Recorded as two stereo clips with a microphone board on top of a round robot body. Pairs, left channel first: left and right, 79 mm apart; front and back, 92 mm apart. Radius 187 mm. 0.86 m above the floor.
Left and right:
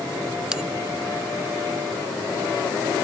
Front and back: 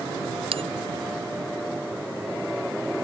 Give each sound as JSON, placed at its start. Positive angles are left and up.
{"t": 0.5, "sound": "a bell", "azimuth_deg": -170}